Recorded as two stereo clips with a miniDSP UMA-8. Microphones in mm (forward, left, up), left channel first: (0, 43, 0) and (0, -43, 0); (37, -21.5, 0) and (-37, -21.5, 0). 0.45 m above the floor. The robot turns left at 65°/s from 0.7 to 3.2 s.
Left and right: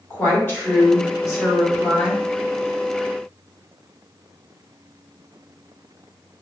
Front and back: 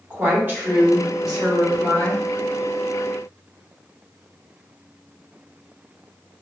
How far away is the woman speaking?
About 1.4 m.